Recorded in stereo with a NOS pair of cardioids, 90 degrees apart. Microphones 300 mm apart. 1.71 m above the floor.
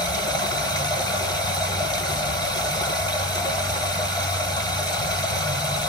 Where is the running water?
15° left, 1.1 m.